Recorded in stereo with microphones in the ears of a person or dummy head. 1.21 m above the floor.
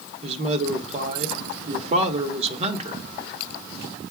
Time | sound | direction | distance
0.2 | a man speaking | 40° right (ahead or behind) | 1.1 m